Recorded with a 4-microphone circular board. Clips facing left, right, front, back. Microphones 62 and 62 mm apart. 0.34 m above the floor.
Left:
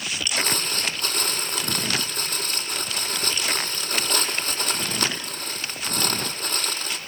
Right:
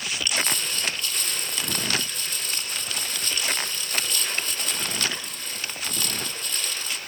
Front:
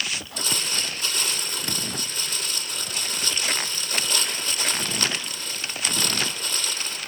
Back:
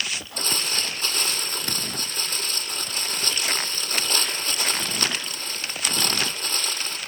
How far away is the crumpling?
About 7.5 m.